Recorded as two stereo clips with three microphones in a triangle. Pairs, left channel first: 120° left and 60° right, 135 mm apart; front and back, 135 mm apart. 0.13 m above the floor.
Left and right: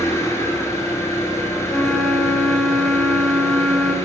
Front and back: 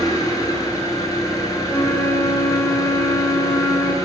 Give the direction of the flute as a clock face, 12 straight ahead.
11 o'clock.